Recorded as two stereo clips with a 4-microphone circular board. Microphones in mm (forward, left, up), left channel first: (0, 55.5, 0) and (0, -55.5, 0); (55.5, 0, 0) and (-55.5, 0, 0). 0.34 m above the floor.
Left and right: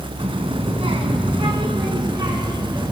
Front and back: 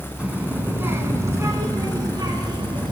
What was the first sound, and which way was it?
A child speaking, 105° right.